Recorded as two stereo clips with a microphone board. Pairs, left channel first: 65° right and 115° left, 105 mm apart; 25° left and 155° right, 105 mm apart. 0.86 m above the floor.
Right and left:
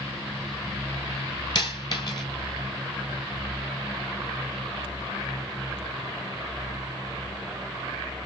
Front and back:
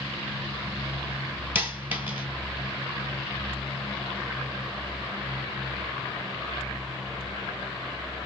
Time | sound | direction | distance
1.6 | a dropped coin | 95° right | 1.2 m